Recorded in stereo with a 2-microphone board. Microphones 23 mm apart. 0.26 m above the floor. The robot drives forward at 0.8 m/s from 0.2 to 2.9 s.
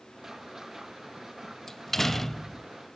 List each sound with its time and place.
1.7 s a door slam: 10° left (ahead or behind), 0.6 m; by 2.7 s 5° left (ahead or behind), 0.9 m